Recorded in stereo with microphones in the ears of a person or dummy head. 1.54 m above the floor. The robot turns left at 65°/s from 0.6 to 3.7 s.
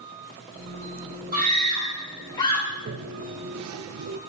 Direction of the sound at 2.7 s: 35° right (ahead or behind).